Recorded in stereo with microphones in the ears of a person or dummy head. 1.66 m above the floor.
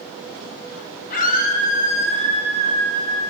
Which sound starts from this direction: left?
A scream, at 1.1 s.